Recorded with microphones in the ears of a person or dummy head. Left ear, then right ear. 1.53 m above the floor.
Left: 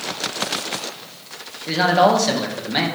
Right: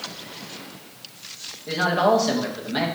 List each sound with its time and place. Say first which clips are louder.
1.7 s a man speaking: left 4 dB; 20° left (ahead or behind), 1.6 m